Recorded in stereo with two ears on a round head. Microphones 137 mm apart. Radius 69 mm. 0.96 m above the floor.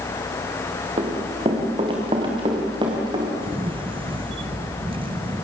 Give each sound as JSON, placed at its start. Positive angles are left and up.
{"t": 1.0, "sound": "running footsteps", "side_deg": -35, "distance_m": 5.5}
{"t": 3.4, "sound": "a camera shutter", "side_deg": -35, "distance_m": 0.9}